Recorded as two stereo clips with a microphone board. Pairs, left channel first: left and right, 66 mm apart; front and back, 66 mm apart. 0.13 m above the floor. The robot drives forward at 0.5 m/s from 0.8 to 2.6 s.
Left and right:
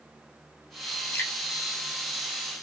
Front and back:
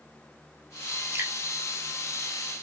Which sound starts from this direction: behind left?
Dripping, at 1.1 s.